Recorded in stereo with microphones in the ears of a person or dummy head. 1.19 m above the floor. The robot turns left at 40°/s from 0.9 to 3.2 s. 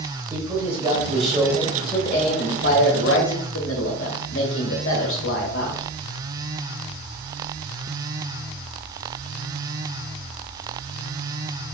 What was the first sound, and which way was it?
A man speaking, 165° right.